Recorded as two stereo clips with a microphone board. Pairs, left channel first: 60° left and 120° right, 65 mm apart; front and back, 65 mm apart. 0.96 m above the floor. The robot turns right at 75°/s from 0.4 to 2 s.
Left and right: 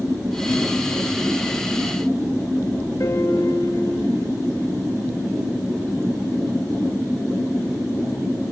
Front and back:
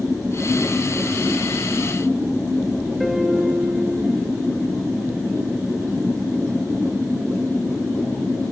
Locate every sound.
3.0 s a piano: 95° left, 2.5 m